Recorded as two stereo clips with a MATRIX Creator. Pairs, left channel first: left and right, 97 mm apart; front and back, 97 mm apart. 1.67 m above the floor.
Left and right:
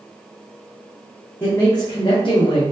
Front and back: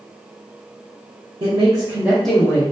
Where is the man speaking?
160° left, 0.9 m; by 2.6 s 55° left, 0.8 m.